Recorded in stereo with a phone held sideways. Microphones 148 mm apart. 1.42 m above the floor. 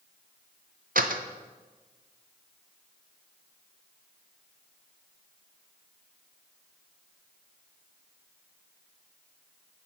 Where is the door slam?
70° right (ahead or behind), 0.7 m.